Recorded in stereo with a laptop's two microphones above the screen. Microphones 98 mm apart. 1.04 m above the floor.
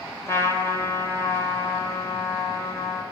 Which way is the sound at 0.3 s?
30° left (ahead or behind).